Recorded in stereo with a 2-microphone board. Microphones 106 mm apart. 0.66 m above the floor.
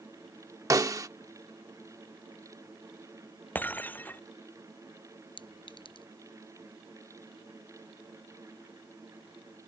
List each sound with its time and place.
0.7 s a snare drum: 35° right (ahead or behind)
3.5 s breaking glass: 15° left (ahead or behind)
5.4 s a clink: 55° left (ahead or behind)